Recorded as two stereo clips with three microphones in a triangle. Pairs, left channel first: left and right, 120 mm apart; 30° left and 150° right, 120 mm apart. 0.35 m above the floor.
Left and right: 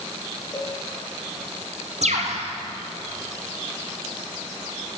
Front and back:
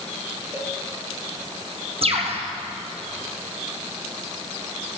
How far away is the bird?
About 3.5 m.